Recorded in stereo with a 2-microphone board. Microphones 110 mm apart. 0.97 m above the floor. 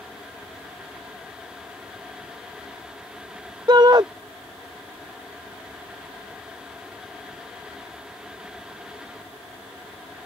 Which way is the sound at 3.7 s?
40° right (ahead or behind).